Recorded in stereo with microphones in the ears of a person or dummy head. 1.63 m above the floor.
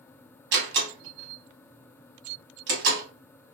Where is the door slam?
60° right (ahead or behind), 1.4 m.